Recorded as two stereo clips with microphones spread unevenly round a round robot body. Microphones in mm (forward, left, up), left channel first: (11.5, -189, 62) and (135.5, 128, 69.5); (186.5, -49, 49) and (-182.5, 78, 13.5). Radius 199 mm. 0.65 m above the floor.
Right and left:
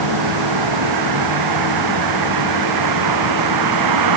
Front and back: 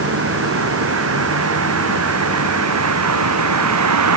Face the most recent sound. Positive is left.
turn(degrees=110)